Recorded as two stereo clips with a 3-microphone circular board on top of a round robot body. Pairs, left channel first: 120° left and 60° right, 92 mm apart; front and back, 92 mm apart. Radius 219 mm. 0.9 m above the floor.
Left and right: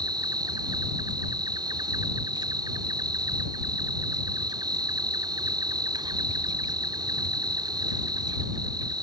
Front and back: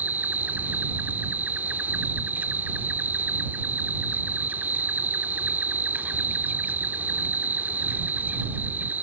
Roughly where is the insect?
Right.